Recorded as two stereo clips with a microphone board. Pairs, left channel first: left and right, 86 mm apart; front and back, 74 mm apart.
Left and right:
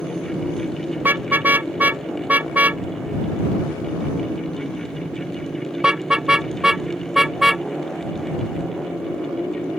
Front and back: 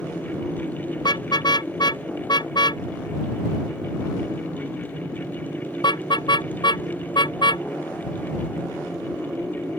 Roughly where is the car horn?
Ahead.